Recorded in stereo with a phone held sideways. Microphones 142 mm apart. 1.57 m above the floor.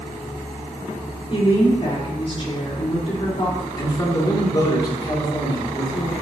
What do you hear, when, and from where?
1.3 s a woman speaking: 40° left (ahead or behind), 3.5 m
3.8 s a man speaking: 30° left (ahead or behind), 2.5 m